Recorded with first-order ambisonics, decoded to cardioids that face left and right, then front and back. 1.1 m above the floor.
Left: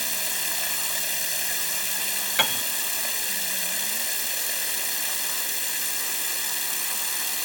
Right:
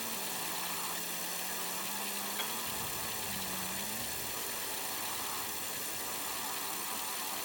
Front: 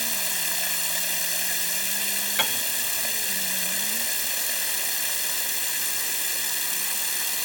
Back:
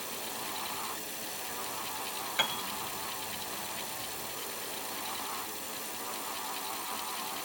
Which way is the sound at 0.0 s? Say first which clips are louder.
Left 10 dB, front 10 dB; 40° left.